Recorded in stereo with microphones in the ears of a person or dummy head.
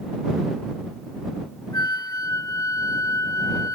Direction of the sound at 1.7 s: 20° left (ahead or behind).